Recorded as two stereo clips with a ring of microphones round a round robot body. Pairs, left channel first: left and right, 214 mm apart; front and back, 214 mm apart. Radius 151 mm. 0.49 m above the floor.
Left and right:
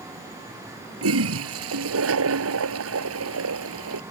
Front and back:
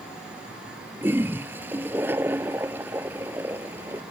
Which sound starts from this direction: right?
A toilet flushing, at 1.0 s.